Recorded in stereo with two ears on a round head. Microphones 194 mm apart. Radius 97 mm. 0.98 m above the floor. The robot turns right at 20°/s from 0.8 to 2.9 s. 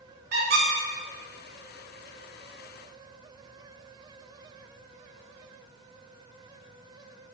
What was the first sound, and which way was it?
A squeak, 45° right (ahead or behind).